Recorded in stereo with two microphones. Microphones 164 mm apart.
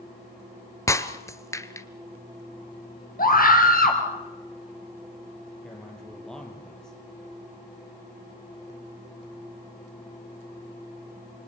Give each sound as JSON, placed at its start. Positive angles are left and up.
{"t": 0.9, "sound": "breaking glass", "side_deg": 20, "distance_m": 1.2}
{"t": 3.2, "sound": "a scream", "side_deg": 60, "distance_m": 4.0}
{"t": 5.6, "sound": "a man speaking", "side_deg": 5, "distance_m": 6.0}